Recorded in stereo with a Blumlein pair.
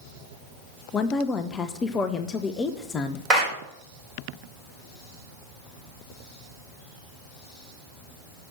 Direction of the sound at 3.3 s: 20° right.